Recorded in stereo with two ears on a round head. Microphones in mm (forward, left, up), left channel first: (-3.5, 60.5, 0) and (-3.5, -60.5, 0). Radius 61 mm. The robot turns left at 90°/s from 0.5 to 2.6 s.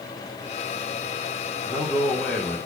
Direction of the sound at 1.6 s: 5° right (ahead or behind).